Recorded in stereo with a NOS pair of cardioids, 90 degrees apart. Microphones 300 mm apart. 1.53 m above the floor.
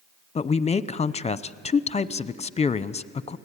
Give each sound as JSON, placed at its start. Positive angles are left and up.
{"t": 0.3, "sound": "a man speaking", "azimuth_deg": 20, "distance_m": 0.7}